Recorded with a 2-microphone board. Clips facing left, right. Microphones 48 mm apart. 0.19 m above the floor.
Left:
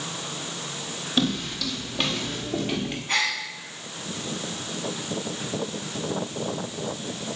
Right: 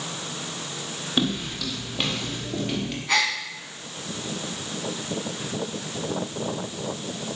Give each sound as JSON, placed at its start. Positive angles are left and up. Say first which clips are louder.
{"t": 1.2, "sound": "footsteps", "louder": "even", "side_deg": -15, "distance_m": 4.5}
{"t": 3.1, "sound": "a gasp", "louder": "right 3 dB", "side_deg": -85, "distance_m": 7.0}